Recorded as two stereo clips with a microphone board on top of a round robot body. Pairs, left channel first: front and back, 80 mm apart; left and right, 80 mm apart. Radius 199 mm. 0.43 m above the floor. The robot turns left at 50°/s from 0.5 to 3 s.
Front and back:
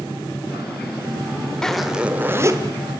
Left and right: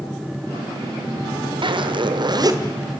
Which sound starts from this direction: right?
A zipper, at 1.6 s.